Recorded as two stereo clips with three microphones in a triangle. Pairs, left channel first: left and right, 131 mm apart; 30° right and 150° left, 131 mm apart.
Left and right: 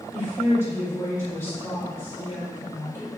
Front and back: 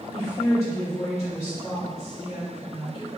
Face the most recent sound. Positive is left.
turn(degrees=-25)